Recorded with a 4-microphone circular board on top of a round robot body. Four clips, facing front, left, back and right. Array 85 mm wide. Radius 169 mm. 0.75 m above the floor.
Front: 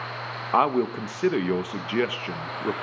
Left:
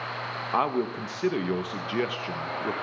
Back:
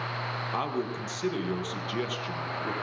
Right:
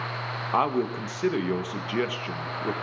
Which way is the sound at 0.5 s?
5° right.